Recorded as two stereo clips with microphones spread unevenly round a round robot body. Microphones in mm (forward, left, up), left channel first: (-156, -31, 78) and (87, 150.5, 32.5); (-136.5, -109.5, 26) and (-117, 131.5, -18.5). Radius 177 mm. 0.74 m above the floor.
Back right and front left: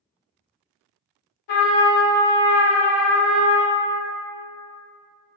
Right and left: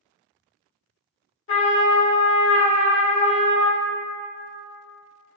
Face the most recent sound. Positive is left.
turn(degrees=-130)